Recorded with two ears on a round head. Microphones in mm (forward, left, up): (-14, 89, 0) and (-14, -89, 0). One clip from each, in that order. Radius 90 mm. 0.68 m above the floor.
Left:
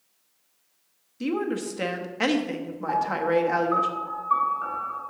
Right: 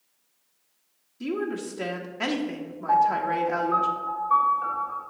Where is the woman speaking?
20° left (ahead or behind), 0.7 m.